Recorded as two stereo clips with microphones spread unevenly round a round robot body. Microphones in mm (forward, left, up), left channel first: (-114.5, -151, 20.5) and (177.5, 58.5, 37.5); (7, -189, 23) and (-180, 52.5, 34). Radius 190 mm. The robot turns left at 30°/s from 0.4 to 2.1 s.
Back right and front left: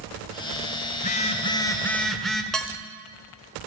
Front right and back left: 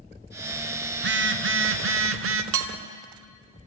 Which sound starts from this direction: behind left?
Dishes clattering, at 2.5 s.